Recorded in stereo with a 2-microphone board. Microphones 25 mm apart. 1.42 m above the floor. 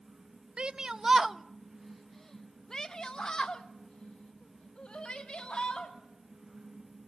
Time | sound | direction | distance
0.6 | a shout | 45° right (ahead or behind) | 0.6 m